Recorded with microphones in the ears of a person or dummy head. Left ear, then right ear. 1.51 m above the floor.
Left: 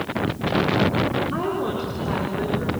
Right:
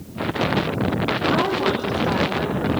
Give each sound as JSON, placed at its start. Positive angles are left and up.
{"t": 1.3, "sound": "a woman speaking", "side_deg": -40, "distance_m": 4.5}